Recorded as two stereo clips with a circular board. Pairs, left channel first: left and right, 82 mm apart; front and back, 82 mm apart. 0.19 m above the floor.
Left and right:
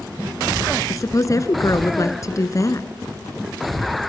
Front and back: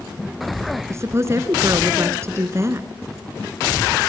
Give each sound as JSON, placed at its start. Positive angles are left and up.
{"t": 0.9, "sound": "a woman speaking", "azimuth_deg": 130, "distance_m": 2.0}